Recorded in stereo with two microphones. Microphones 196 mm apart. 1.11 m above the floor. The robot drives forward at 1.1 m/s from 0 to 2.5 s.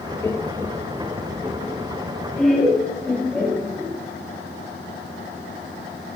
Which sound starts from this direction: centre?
Laughter, at 0.2 s.